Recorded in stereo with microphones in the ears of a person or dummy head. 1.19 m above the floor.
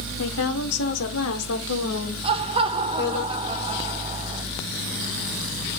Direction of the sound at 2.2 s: 25° right (ahead or behind).